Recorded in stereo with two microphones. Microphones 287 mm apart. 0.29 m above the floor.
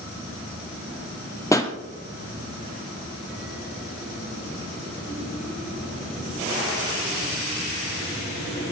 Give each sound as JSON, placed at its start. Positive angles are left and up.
{"t": 1.5, "sound": "a pop", "side_deg": 10, "distance_m": 1.5}